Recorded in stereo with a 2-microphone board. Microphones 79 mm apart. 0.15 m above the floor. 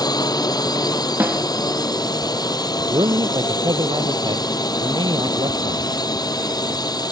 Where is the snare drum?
25° right (ahead or behind).